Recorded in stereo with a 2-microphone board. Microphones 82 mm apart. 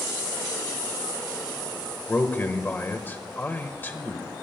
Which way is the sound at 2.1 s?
25° left (ahead or behind).